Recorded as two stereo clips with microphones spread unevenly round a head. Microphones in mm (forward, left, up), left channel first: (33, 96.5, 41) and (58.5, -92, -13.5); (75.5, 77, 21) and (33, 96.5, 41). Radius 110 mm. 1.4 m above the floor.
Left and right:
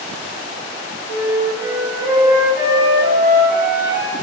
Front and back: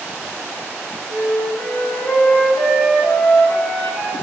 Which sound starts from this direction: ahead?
A flute, at 1.1 s.